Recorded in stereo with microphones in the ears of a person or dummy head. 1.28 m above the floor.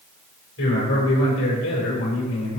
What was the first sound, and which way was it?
A man speaking, 75° left (ahead or behind).